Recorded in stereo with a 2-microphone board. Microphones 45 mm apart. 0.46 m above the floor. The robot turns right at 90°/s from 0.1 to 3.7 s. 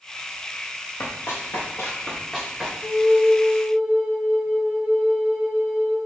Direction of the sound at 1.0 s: 60° left (ahead or behind).